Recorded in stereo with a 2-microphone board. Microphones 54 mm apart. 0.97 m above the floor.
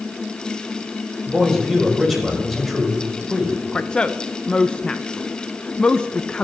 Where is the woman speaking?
15° left (ahead or behind), 0.5 m.